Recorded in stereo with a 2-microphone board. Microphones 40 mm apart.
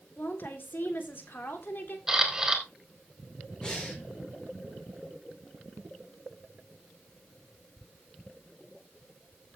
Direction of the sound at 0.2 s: 50° left (ahead or behind).